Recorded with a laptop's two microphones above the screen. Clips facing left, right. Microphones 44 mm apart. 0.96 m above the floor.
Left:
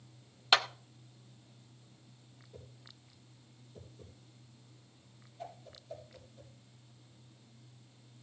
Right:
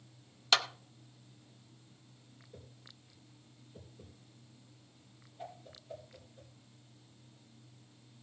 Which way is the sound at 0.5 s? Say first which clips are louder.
Left 2 dB; 15° left (ahead or behind).